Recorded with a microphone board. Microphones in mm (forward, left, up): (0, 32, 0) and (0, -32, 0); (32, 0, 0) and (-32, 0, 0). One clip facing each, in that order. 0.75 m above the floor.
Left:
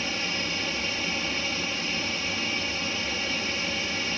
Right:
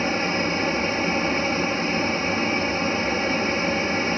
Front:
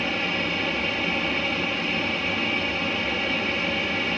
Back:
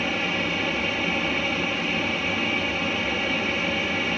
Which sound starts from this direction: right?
An aircraft, at 0.0 s.